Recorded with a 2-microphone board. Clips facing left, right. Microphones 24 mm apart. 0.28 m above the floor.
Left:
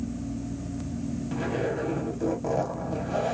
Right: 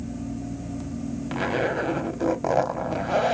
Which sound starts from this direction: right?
A zipper, at 1.3 s.